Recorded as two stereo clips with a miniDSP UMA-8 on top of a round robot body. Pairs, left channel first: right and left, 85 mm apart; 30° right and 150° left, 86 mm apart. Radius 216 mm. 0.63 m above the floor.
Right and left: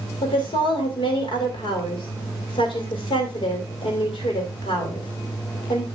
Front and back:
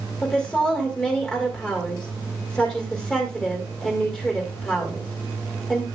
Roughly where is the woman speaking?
Right.